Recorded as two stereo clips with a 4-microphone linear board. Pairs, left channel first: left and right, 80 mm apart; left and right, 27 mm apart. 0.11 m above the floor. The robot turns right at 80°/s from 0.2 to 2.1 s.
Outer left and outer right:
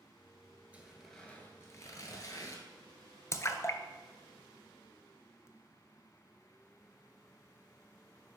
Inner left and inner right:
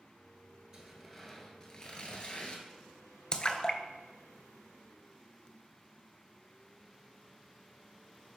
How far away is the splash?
About 0.6 m.